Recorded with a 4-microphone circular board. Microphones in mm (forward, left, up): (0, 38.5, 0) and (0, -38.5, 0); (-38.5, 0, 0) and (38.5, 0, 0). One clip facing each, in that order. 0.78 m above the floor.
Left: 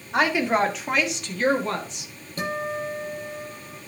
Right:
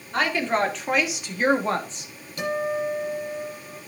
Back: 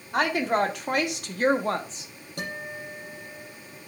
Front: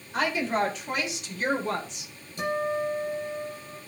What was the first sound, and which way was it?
A woman speaking, 160° left.